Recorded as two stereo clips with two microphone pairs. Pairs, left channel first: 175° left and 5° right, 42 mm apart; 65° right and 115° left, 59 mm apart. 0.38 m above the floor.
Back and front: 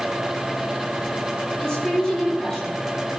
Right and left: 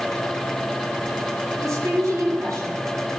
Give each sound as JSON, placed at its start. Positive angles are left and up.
{"t": 1.6, "sound": "a woman speaking", "azimuth_deg": 95, "distance_m": 10.0}